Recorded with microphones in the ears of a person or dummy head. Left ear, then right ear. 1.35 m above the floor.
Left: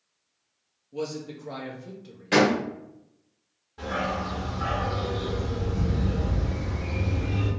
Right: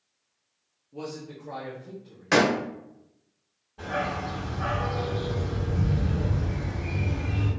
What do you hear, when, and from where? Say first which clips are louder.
0.9 s a man speaking: left 5 dB; 45° left (ahead or behind), 0.9 m
2.3 s a door slam: even; 55° right (ahead or behind), 1.2 m
3.8 s a dog barking: left 1 dB; 25° left (ahead or behind), 1.7 m